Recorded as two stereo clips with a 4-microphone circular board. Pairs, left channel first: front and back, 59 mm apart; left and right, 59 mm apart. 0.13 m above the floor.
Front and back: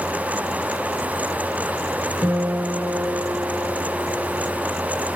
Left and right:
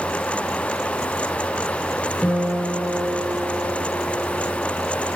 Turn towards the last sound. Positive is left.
turn(degrees=-175)